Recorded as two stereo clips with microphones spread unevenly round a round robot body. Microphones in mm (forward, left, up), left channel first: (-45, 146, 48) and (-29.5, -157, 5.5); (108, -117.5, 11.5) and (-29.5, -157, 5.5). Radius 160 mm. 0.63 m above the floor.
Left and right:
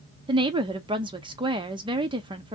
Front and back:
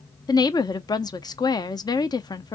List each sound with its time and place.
0.3 s a woman speaking: 35° right, 0.6 m